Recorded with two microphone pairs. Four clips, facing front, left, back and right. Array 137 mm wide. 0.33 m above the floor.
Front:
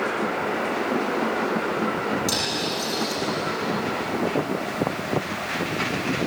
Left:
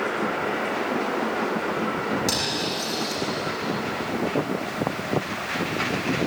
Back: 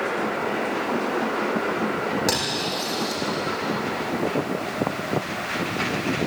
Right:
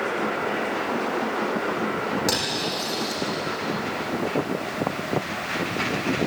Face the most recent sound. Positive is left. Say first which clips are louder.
# even, back 1 dB
turn(degrees=-155)